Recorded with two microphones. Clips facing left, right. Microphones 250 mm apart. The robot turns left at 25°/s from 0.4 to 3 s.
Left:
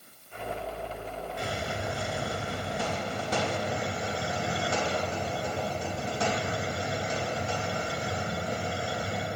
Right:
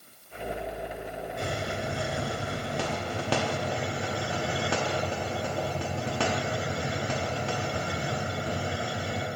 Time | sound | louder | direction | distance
1.4 | a hiss | right 2 dB | 50° right | 0.8 m